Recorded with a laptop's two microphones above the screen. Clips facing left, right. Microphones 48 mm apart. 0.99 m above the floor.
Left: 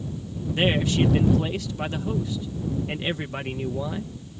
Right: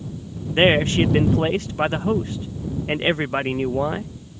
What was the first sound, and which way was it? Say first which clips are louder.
A man speaking: right 6 dB; 45° right (ahead or behind).